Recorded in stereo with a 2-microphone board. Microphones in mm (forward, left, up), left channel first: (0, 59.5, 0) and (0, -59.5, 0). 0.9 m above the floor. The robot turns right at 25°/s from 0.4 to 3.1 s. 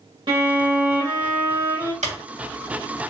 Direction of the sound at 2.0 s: 80° right.